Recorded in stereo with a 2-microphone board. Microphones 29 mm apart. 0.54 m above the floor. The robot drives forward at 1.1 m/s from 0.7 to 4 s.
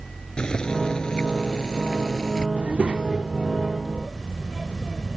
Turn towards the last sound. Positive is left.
turn(degrees=-15)  # may be behind; listen again after turning